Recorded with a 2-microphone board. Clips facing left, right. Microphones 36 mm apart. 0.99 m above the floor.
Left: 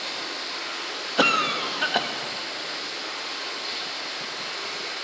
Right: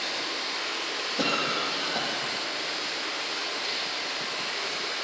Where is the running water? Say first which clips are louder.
Right 1 dB; 70° right (ahead or behind), 6 m.